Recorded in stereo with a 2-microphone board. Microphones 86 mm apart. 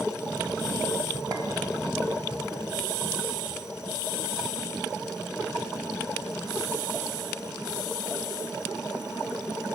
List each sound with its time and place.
1.3 s a clink: 45° right (ahead or behind), 3 m